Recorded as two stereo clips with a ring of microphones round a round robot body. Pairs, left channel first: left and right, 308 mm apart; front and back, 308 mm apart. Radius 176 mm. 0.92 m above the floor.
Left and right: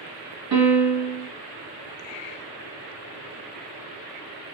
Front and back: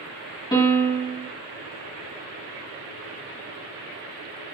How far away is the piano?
About 1.3 m.